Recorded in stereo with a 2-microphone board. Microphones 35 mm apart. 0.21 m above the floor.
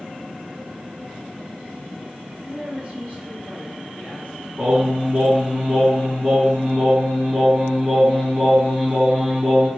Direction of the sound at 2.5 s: 40° right (ahead or behind).